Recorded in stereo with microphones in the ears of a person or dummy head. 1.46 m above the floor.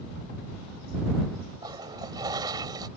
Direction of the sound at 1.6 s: 20° right (ahead or behind).